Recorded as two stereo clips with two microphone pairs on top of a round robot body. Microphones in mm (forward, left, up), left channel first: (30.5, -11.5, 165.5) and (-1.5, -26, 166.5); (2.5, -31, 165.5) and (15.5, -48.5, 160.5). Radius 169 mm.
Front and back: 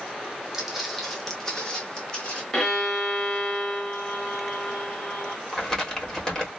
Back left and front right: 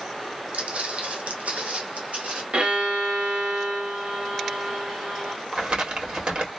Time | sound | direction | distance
0.5 | footsteps | 75° right | 1.3 m
2.5 | a violin | 45° right | 1.4 m
5.5 | crumpling | 45° right | 2.0 m